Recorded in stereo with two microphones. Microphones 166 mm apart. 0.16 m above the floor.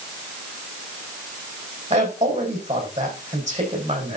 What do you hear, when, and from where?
1.9 s a man speaking: 45° right (ahead or behind), 6 m